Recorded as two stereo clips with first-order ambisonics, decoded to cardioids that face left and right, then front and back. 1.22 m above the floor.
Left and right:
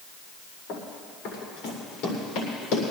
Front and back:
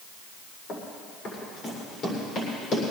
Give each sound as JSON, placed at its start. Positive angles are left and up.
{"t": 0.7, "sound": "running footsteps", "azimuth_deg": 55, "distance_m": 6.0}